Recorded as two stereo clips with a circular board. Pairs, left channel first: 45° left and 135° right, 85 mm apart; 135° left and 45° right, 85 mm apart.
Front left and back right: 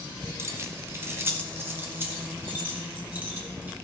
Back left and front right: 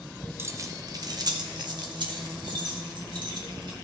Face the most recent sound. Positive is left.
turn(degrees=-65)